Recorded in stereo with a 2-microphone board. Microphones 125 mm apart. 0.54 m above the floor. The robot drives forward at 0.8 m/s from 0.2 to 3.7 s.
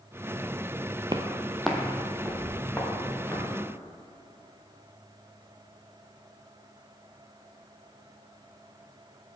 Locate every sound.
1.1 s footsteps: 35° right (ahead or behind), 0.6 m; by 3.4 s 10° left (ahead or behind), 4.5 m